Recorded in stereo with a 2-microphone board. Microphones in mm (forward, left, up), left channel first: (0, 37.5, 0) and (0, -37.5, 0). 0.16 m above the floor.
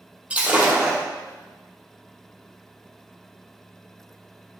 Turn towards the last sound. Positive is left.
turn(degrees=-20)  # may be behind; listen again after turning